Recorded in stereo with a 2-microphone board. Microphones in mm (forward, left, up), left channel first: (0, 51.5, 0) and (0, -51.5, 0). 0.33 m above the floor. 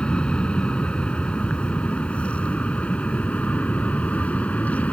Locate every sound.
0.0 s an aircraft: 10° left (ahead or behind); by 4.9 s 15° left (ahead or behind)